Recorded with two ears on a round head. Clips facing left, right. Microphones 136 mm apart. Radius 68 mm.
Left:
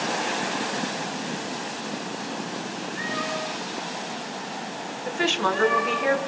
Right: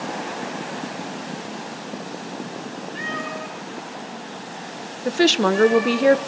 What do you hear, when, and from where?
3.0 s a cat meowing: 50° right (ahead or behind), 7 m; by 6.0 s 15° right (ahead or behind), 8.5 m
5.0 s a woman speaking: 45° right (ahead or behind), 1.2 m